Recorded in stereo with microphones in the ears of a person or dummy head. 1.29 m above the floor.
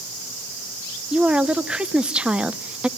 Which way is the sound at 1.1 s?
5° right (ahead or behind).